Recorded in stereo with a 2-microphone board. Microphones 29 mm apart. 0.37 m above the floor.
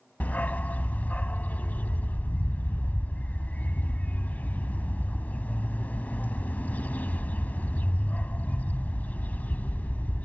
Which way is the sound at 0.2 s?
75° left (ahead or behind).